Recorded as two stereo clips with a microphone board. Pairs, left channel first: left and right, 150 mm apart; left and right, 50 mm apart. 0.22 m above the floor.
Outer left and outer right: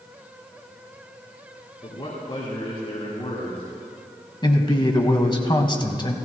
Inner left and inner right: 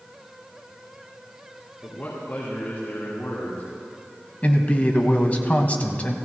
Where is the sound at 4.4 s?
30° left (ahead or behind), 1.4 m.